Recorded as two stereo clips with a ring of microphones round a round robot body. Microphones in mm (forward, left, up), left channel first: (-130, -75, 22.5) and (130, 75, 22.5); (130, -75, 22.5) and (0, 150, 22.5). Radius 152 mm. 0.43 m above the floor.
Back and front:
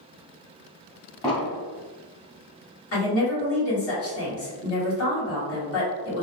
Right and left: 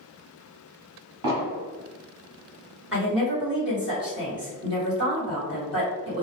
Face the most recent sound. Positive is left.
turn(degrees=-155)